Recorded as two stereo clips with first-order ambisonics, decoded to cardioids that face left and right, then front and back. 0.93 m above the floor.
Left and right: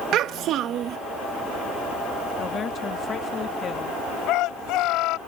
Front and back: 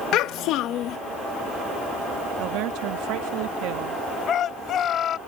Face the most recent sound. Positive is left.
turn(degrees=55)